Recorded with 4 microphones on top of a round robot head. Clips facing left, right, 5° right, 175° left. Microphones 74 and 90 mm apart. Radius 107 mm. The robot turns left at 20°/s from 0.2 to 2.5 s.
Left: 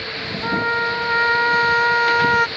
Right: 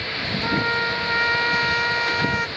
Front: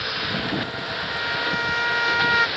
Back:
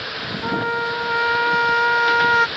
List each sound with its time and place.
0.4 s a trumpet: 160° left; by 2.5 s 120° left